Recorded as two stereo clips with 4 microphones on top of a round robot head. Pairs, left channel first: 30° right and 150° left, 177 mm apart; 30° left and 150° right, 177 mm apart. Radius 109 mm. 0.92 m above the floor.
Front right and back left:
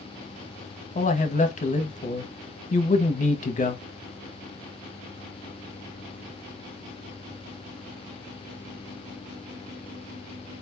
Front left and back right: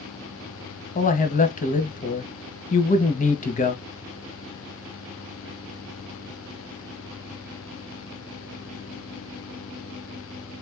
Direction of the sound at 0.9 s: Straight ahead.